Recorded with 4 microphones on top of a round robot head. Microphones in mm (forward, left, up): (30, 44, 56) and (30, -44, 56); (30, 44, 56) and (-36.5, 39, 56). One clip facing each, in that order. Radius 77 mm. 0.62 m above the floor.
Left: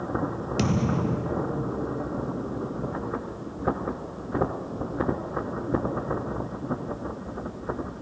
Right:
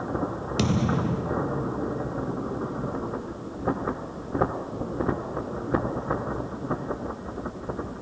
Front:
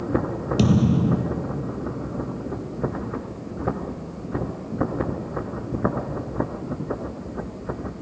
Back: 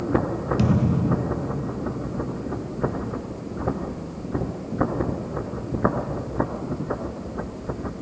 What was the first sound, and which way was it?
A thud, straight ahead.